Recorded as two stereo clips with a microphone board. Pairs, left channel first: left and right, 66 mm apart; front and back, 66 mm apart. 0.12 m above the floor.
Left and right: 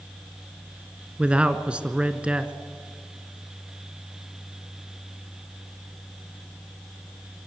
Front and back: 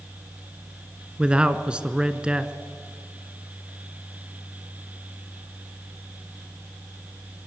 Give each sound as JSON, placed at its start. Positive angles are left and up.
{"t": 1.2, "sound": "a man speaking", "azimuth_deg": -130, "distance_m": 1.1}